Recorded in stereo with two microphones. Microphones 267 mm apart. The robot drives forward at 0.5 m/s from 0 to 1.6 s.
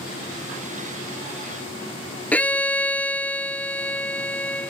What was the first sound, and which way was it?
A violin, 5° left (ahead or behind).